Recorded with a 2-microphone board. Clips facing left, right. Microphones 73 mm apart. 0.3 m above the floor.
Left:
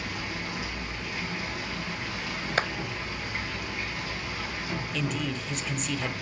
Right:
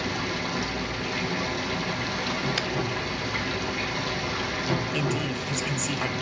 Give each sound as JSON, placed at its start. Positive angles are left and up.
{"t": 0.0, "sound": "running water", "side_deg": -70, "distance_m": 2.5}
{"t": 2.6, "sound": "a clap", "side_deg": 40, "distance_m": 1.1}
{"t": 4.9, "sound": "a man speaking", "side_deg": -5, "distance_m": 1.1}